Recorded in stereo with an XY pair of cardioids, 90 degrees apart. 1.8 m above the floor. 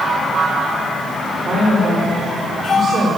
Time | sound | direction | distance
1.4 | a woman speaking | 65° right | 6 m